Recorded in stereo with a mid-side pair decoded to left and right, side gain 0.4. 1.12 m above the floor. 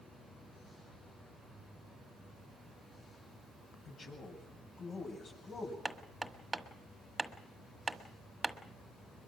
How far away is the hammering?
About 1.5 m.